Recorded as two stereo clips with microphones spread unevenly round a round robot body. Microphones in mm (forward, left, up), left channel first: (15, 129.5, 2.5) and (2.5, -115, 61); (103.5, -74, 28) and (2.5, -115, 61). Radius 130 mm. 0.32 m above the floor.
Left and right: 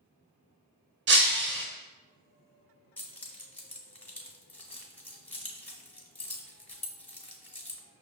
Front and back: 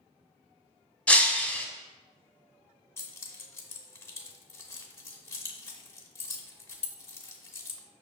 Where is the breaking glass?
45° right, 0.7 m.